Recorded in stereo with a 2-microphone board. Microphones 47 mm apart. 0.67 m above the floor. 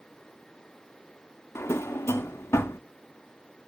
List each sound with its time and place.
1.6 s a drawer: 80° left, 0.6 m